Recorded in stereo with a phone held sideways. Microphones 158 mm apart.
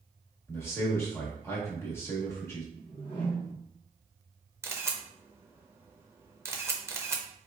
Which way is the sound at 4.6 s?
15° right (ahead or behind).